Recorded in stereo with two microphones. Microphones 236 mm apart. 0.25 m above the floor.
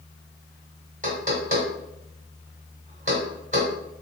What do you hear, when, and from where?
1.0 s knocking: 30° right (ahead or behind), 1.3 m